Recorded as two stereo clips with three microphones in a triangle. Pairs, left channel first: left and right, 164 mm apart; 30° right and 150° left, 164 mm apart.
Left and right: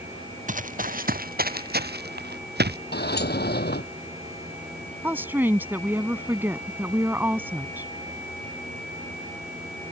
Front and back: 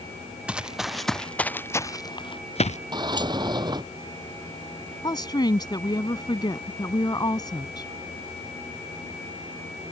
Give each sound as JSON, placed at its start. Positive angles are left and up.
{"t": 0.5, "sound": "running footsteps", "azimuth_deg": -125}
{"t": 2.9, "sound": "a sliding door", "azimuth_deg": 85}
{"t": 5.0, "sound": "a woman speaking", "azimuth_deg": -30}